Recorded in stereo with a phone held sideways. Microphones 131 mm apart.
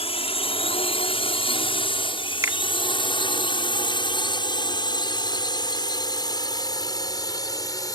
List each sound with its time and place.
0.0 s a drone: 45° left (ahead or behind); by 8.0 s 25° left (ahead or behind)
2.4 s a finger snap: 25° right (ahead or behind)